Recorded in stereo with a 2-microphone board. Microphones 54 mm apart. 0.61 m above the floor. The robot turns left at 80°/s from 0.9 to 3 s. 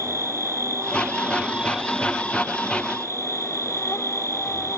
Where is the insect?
105° right; by 4.8 s 90° left.